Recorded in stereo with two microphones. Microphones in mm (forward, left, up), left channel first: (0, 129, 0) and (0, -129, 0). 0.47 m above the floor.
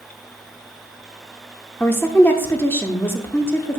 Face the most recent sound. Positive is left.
turn(degrees=10)  # may be behind; listen again after turning